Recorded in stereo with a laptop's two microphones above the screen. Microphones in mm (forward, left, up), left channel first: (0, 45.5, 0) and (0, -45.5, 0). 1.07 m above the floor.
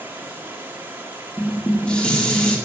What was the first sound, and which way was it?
Running water, 20° right (ahead or behind).